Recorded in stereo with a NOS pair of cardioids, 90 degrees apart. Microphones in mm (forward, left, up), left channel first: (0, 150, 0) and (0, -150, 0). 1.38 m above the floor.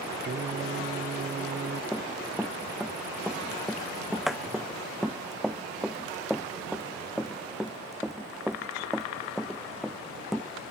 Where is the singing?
35° right.